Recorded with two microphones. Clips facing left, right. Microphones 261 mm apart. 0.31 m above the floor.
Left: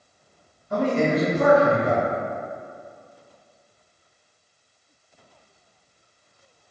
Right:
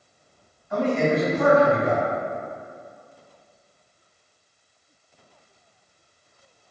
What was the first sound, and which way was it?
A man speaking, 40° left (ahead or behind).